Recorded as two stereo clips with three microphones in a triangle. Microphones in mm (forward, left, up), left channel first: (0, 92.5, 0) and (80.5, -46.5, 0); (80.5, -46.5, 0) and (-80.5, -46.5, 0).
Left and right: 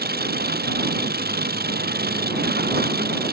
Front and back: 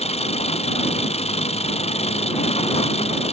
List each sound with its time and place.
0.0 s an engine running: 50° right